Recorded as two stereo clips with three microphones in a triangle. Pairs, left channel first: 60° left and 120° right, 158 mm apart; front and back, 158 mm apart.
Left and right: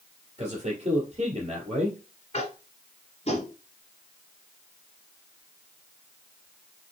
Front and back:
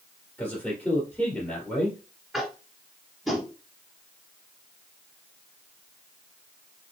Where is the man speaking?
80° right, 2.5 m.